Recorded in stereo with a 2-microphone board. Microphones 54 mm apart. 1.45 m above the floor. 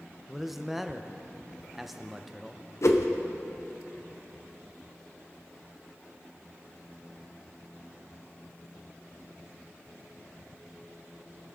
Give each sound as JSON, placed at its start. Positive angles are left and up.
{"t": 0.3, "sound": "a man speaking", "side_deg": 0, "distance_m": 0.7}
{"t": 2.8, "sound": "a whoosh", "side_deg": 60, "distance_m": 0.7}